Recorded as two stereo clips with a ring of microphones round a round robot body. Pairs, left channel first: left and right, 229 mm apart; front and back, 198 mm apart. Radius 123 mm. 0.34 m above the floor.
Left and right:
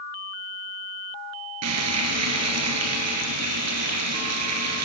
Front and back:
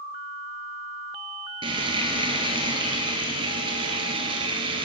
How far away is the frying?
About 1.7 m.